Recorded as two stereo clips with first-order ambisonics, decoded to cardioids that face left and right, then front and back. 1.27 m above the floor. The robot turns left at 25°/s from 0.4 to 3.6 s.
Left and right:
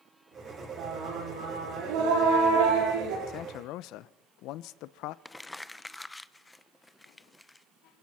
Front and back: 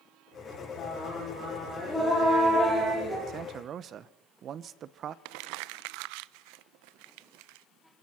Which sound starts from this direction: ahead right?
Singing, at 0.8 s.